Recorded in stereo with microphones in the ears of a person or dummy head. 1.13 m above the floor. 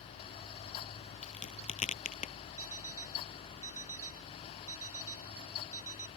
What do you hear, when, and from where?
1.2 s a crack: 45° left (ahead or behind)
2.6 s an alarm clock: 15° right (ahead or behind)